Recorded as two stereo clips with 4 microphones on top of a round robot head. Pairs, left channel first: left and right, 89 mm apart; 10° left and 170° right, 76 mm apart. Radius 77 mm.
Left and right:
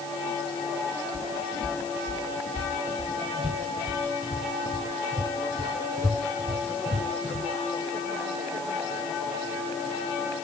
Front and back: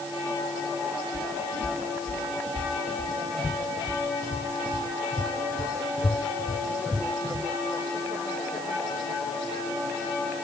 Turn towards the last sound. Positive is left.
turn(degrees=-70)